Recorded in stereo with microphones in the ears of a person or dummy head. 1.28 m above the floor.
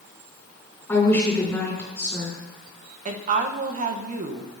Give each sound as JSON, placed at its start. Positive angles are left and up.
{"t": 0.9, "sound": "a woman speaking", "side_deg": 10, "distance_m": 3.5}
{"t": 3.0, "sound": "a woman speaking", "side_deg": -45, "distance_m": 0.8}